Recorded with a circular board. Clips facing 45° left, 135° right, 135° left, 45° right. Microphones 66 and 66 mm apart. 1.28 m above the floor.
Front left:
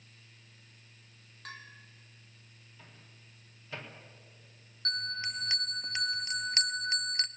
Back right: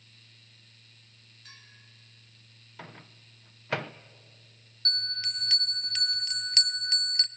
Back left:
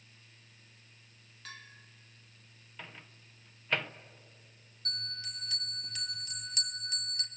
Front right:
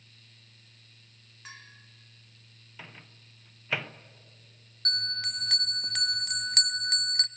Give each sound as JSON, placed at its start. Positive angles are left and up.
{"t": 1.4, "sound": "a bell", "azimuth_deg": 25, "distance_m": 2.0}
{"t": 2.8, "sound": "a microwave", "azimuth_deg": -130, "distance_m": 0.6}
{"t": 4.8, "sound": "a bell", "azimuth_deg": -25, "distance_m": 0.6}